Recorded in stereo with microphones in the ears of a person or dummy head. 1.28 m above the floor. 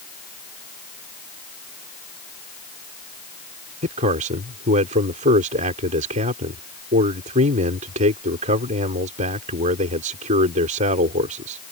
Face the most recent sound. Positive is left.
turn(degrees=-45)  # may be behind; listen again after turning